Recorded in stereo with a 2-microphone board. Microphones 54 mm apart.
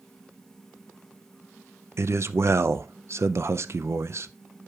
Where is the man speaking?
55° right (ahead or behind), 0.5 m.